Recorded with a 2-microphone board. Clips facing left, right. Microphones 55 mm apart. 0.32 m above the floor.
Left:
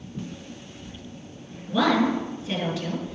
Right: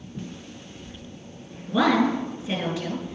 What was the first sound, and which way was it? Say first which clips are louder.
A woman speaking: right 1 dB; 10° right (ahead or behind).